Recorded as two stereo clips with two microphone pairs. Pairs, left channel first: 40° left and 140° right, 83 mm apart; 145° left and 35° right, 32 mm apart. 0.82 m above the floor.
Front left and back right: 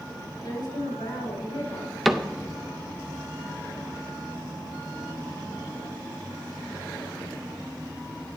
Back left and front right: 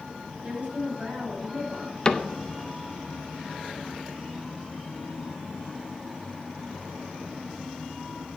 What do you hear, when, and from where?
0.4 s a woman speaking: 15° left, 5 m
2.0 s a cupboard door: 135° left, 0.5 m